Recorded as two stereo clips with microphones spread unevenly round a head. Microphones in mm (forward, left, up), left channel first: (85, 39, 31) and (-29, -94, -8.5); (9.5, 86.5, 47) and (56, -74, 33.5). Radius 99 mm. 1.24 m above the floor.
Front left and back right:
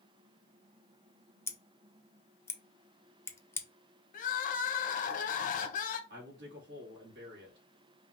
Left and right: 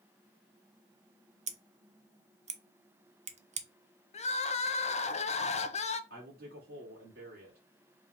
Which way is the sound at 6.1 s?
115° right.